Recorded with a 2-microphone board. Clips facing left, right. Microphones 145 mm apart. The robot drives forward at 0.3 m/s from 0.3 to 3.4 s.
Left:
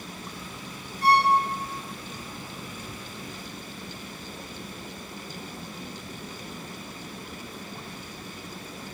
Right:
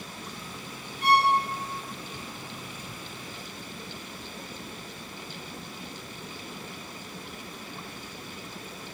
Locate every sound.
1.0 s a violin: 35° left (ahead or behind), 0.6 m